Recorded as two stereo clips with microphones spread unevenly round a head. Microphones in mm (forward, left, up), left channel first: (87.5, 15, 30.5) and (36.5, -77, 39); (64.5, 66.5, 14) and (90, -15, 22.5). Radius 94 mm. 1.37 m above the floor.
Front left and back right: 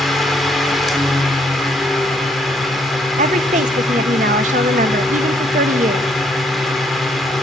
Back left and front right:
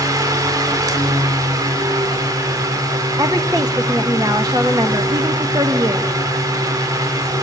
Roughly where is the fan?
Ahead right.